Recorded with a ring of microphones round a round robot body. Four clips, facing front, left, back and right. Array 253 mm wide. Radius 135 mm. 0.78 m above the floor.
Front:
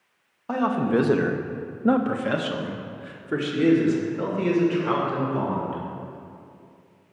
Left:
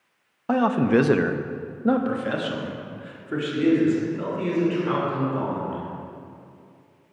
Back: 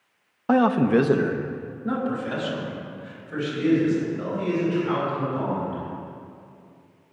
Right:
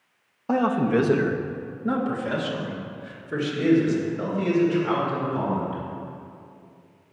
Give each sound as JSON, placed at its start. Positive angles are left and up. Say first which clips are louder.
{"t": 0.5, "sound": "a man speaking", "louder": "left 2 dB, back 4 dB", "azimuth_deg": 165, "distance_m": 0.8}